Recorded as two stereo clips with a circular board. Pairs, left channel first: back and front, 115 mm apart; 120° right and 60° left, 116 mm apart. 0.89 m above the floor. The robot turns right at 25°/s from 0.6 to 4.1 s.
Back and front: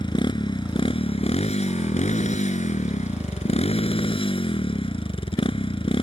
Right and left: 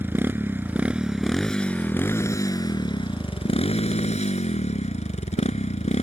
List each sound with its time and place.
0.0 s a motorcycle: 135° left; by 6.0 s 140° right